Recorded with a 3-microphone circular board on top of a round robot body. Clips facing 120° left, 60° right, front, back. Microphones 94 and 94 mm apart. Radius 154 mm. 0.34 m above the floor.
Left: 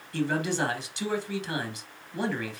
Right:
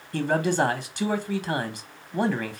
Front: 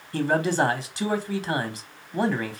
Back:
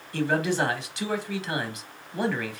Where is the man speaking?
45° right, 1.2 m.